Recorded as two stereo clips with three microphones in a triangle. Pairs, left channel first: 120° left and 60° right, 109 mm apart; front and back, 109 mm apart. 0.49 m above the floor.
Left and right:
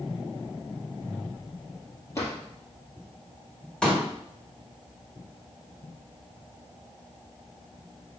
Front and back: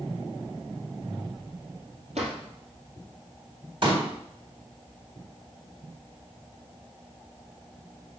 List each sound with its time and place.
2.1 s a drawer: 175° right, 3 m
3.8 s a pop: 160° right, 1.9 m